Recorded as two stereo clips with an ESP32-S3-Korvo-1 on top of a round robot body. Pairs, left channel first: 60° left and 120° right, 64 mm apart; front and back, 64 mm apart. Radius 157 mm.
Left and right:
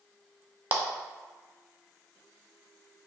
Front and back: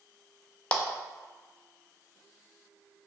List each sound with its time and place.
0.7 s a clap: 65° right, 0.5 m